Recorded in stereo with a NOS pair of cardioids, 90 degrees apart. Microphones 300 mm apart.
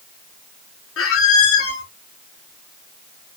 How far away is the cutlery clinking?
No cutlery clinking in this recording.